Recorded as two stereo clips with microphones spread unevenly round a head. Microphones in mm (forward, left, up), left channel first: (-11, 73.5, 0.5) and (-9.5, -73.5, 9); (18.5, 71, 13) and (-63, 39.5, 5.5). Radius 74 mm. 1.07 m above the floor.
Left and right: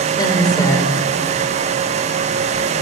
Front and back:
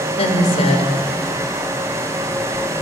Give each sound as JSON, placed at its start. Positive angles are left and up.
{"t": 0.2, "sound": "a woman speaking", "azimuth_deg": 20, "distance_m": 4.0}